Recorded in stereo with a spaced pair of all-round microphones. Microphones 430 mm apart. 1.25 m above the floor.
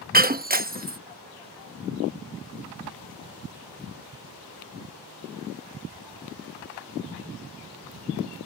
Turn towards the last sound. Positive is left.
turn(degrees=-20)  # may be behind; listen again after turning